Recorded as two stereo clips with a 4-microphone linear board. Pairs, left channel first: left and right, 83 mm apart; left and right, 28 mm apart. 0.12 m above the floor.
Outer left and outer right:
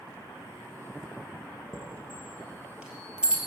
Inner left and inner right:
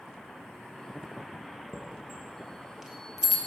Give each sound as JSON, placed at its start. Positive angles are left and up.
{"t": 1.7, "sound": "a chime", "side_deg": -10, "distance_m": 1.5}